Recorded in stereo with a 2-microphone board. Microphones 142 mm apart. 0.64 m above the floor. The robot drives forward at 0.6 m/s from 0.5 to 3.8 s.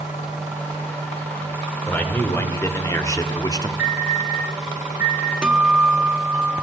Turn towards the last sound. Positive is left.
turn(degrees=-5)  # may be behind; listen again after turning